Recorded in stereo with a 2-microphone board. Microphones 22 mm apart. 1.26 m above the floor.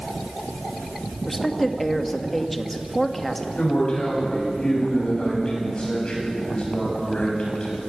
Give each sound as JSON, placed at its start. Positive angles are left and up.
{"t": 1.3, "sound": "a woman speaking", "side_deg": 10, "distance_m": 1.5}
{"t": 3.6, "sound": "a man speaking", "side_deg": 45, "distance_m": 7.5}